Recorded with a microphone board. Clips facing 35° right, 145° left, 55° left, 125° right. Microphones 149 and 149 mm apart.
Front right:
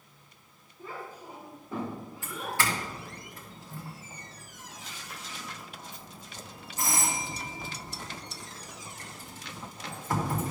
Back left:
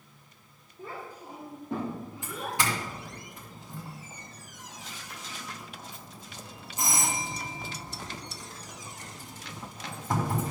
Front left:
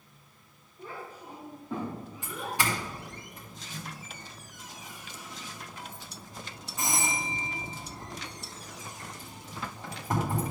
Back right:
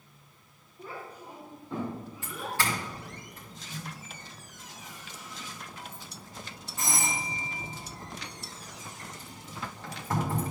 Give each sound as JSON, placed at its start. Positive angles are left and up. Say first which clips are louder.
{"t": 0.8, "sound": "a child speaking", "louder": "back left 1 dB, even", "azimuth_deg": 150, "distance_m": 3.5}
{"t": 2.2, "sound": "a doorbell", "louder": "even, front left 1 dB", "azimuth_deg": 105, "distance_m": 1.8}